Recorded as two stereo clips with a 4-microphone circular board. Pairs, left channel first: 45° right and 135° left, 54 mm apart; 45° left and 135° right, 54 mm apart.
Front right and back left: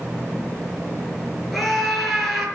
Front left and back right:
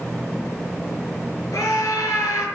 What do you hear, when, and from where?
1.5 s a scream: 45° left, 6.5 m